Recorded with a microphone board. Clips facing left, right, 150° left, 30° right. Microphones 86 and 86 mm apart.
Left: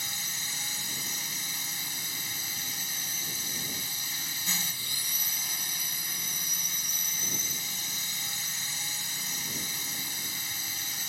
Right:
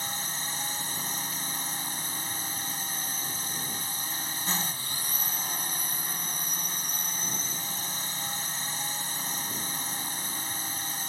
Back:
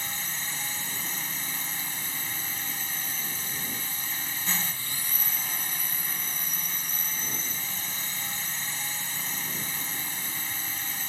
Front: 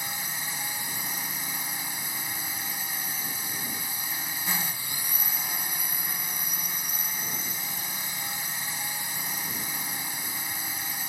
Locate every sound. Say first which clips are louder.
0.0 s a drone: right 5 dB, front 1 dB; 100° right